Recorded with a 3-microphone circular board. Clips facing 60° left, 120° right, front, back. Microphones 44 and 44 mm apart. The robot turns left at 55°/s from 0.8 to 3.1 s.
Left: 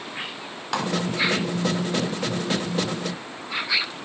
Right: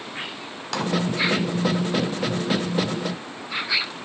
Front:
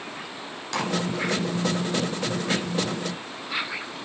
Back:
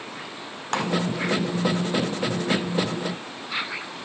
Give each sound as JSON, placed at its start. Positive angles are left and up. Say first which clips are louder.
{"t": 0.7, "sound": "a clap", "louder": "left 1 dB, back 2 dB", "azimuth_deg": 135, "distance_m": 1.8}